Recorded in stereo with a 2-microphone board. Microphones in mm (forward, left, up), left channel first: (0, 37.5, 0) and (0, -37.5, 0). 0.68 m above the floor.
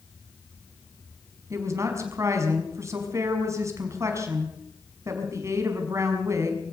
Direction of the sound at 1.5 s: 40° right (ahead or behind).